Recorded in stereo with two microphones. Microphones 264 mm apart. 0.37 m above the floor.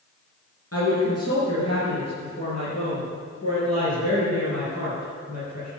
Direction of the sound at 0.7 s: 60° left (ahead or behind).